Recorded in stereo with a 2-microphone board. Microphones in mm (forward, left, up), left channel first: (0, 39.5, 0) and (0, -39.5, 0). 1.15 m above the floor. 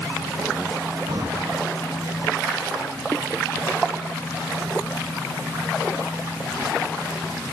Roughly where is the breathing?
Right.